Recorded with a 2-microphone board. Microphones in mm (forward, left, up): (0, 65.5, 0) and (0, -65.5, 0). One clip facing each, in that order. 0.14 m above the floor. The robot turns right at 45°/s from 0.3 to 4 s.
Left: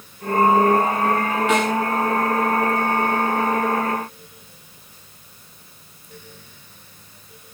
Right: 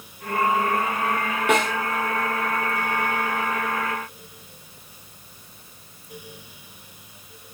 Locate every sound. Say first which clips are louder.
1.5 s a snare drum: even; 55° right (ahead or behind), 7 m; by 1.7 s 45° right (ahead or behind), 7 m